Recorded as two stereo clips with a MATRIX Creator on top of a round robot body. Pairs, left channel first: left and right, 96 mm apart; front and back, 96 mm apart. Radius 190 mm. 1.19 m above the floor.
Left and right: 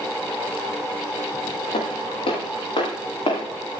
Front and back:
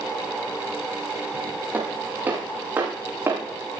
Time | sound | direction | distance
1.7 | footsteps | 110° left | 8 m